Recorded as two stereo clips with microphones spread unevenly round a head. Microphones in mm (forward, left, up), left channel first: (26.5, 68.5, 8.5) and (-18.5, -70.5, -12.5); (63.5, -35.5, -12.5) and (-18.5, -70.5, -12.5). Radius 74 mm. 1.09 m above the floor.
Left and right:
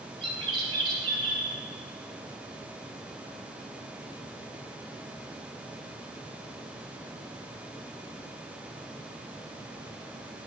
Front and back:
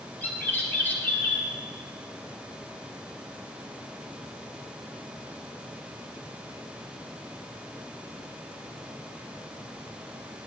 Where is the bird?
50° right, 1.6 m.